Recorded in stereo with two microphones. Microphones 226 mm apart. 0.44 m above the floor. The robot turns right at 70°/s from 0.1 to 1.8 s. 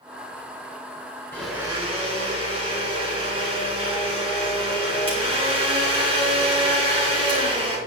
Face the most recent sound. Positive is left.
turn(degrees=-155)